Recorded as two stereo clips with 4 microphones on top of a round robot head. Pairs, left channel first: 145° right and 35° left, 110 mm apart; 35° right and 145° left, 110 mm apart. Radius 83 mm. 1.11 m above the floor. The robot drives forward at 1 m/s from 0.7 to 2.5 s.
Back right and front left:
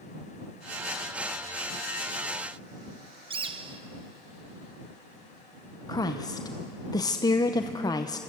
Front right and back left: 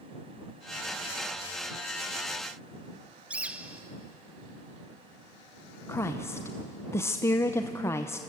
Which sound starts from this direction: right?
A woman speaking, at 5.9 s.